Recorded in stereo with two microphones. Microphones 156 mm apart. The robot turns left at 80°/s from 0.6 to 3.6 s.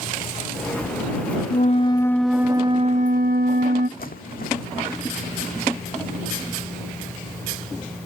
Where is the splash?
70° left (ahead or behind).